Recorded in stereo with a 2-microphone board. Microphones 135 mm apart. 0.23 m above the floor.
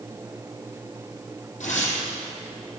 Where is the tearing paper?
60° left (ahead or behind), 4.5 m.